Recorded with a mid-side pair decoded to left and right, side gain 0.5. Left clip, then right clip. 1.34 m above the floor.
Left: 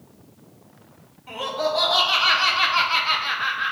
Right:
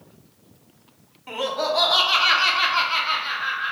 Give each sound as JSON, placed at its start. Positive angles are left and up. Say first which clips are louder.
{"t": 1.3, "sound": "laughter", "louder": "right 1 dB", "azimuth_deg": -30, "distance_m": 1.2}